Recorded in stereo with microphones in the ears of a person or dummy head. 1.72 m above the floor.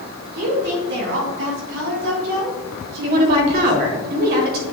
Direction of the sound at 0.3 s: 50° right (ahead or behind).